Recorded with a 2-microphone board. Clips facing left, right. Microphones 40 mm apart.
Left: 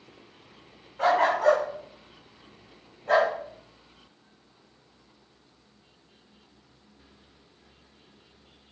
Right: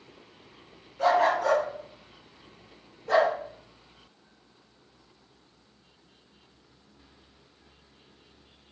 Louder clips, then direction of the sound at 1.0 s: Left 1 dB; 50° left (ahead or behind).